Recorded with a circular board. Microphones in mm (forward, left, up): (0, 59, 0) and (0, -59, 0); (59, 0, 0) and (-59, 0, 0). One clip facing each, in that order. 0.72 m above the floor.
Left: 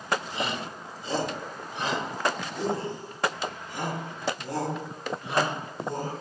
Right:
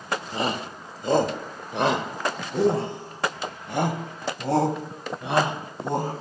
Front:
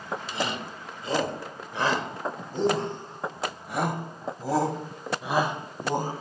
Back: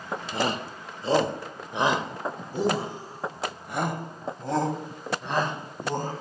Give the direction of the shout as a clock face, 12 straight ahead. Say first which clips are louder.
Right 4 dB, back 5 dB; 5 o'clock.